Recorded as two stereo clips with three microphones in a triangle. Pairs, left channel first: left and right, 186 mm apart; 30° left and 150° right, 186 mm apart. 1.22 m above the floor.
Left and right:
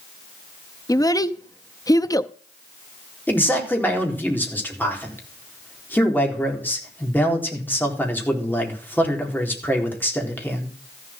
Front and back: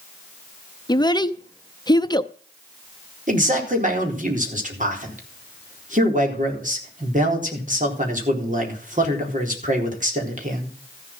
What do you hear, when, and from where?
0.9 s a child speaking: 55° left, 0.6 m
3.3 s a man speaking: 170° left, 4 m